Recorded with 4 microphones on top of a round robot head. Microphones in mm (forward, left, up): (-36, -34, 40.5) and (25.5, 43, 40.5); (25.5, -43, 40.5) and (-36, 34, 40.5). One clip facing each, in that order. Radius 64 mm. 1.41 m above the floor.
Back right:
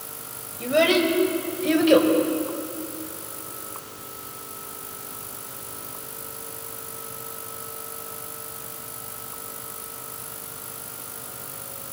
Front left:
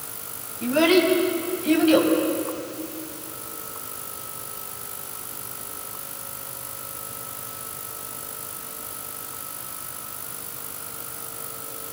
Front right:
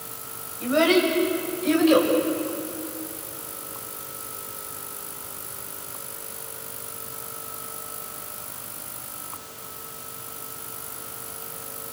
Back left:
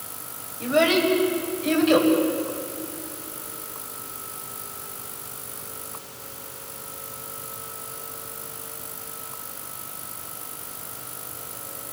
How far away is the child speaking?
About 6.5 m.